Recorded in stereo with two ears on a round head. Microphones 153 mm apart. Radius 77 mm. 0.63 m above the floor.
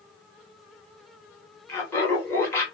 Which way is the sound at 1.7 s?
15° left (ahead or behind).